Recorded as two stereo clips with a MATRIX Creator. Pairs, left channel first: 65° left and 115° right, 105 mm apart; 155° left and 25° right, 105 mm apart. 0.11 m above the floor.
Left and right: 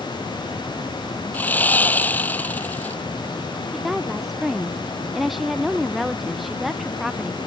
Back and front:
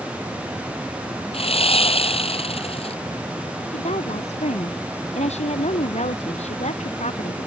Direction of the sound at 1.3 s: 140° left.